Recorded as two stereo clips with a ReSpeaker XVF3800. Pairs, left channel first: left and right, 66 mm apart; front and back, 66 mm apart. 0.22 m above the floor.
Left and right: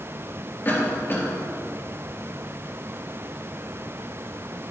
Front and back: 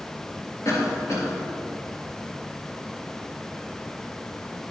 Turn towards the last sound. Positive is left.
turn(degrees=30)